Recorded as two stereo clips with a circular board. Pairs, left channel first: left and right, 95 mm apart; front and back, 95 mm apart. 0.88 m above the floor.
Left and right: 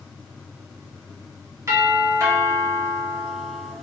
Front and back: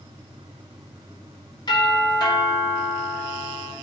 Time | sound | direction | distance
1.7 | a doorbell | 35° right | 3 m